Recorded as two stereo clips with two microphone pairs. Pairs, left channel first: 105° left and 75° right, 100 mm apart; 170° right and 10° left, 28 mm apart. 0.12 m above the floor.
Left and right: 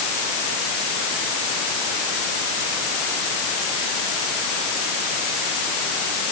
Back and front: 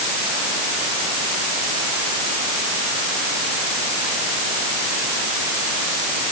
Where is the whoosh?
No whoosh in this recording.